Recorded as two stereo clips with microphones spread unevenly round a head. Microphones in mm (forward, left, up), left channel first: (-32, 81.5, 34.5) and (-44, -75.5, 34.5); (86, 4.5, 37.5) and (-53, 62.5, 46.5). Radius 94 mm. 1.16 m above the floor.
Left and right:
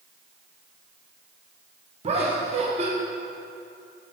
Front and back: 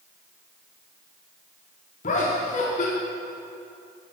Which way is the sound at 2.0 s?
45° right.